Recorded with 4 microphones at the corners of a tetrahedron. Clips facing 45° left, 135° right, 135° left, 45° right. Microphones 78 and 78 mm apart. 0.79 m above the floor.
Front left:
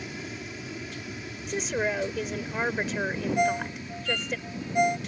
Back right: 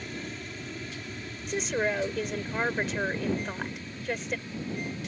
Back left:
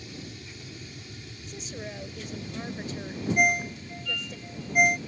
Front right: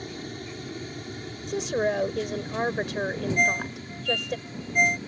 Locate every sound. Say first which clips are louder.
0.0 s an aircraft: front left 1 dB, front right 6 dB; 40° right; by 5.1 s 30° right
1.5 s a woman speaking: even, front right 14 dB; 45° right
3.4 s a ringtone: front left 9 dB, back left 3 dB; 50° left